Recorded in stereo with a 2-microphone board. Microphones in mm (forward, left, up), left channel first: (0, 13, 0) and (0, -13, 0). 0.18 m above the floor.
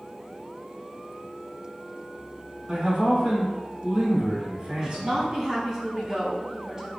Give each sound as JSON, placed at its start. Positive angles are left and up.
{"t": 2.7, "sound": "a man speaking", "side_deg": -45, "distance_m": 1.9}
{"t": 4.8, "sound": "a woman speaking", "side_deg": -25, "distance_m": 1.2}